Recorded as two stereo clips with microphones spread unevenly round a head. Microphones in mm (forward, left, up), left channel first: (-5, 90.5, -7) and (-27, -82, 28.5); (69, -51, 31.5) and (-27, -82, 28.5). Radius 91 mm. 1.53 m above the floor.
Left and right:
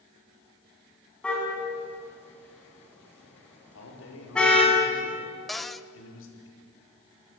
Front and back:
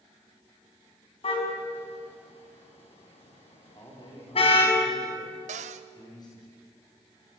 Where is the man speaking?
85° left, 5 m.